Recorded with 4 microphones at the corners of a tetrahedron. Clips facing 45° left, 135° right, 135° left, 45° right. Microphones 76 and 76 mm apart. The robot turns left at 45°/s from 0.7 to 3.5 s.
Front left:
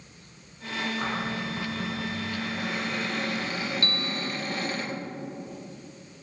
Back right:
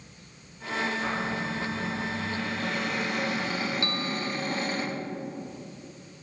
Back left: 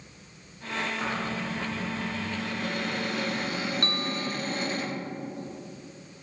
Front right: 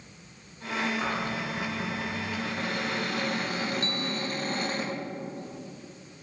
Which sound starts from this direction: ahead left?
A cupboard door, at 1.0 s.